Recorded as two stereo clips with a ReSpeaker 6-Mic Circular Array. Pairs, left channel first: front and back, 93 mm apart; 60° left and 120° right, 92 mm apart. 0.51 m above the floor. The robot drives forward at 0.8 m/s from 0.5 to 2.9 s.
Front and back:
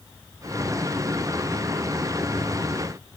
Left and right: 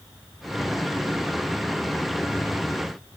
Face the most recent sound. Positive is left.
No sound to turn to.